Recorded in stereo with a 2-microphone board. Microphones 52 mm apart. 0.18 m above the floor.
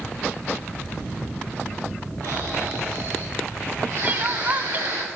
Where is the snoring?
80° right, 4.5 m.